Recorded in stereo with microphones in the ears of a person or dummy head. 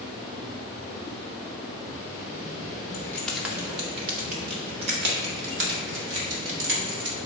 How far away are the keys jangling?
About 1.1 m.